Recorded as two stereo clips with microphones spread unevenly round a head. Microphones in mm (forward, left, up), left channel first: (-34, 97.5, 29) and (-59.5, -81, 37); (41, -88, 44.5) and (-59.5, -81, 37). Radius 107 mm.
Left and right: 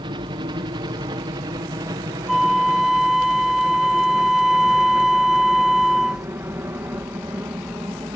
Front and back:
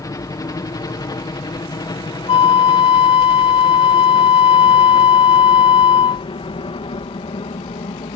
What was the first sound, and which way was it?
A helicopter, 40° right.